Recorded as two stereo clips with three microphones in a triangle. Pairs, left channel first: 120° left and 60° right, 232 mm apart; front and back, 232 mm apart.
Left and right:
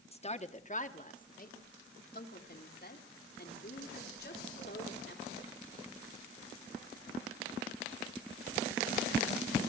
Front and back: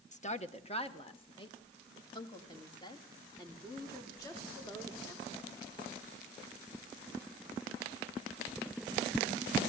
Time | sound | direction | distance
0.1 | a woman speaking | 60° left | 1.2 m